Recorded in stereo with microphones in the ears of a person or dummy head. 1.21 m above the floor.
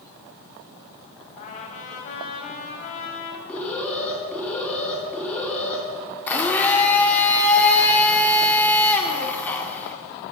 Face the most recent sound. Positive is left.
turn(degrees=15)  # may be behind; listen again after turning